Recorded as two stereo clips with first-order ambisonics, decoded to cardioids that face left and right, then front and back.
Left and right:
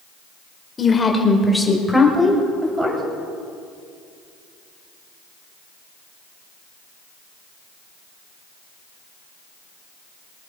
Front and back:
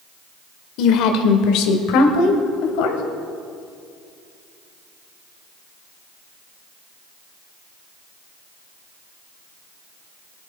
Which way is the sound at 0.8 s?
20° left.